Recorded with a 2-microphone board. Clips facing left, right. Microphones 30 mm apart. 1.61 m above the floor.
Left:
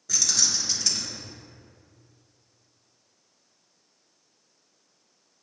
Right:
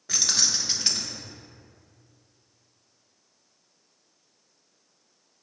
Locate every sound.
0.1 s keys jangling: 30° right (ahead or behind), 1.1 m